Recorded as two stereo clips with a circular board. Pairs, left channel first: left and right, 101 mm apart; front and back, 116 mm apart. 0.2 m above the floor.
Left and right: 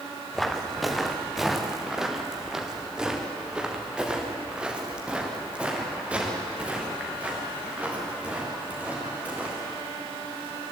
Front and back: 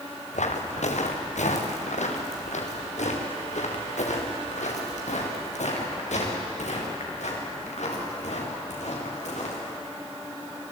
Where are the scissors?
No scissors in this recording.